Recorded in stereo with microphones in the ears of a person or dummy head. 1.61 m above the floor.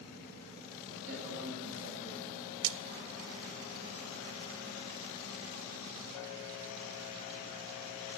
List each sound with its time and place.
1.1 s a man speaking: 80° right, 9 m
2.6 s a splash: 85° right, 0.6 m